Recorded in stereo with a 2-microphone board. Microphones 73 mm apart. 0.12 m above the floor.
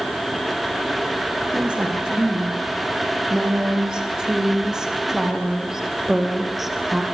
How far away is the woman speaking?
About 9 m.